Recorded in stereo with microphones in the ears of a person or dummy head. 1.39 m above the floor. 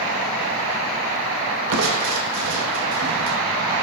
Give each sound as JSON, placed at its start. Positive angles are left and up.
{"t": 1.7, "sound": "crushing", "side_deg": -70, "distance_m": 1.4}